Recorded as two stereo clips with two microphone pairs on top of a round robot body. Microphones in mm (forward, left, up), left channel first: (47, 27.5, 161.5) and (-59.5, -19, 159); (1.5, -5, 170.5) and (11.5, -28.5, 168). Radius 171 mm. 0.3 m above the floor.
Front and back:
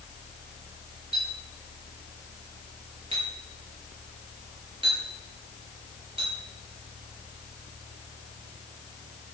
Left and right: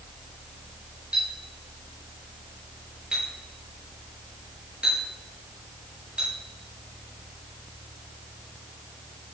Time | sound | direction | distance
1.1 | a clink | 115° right | 7.5 m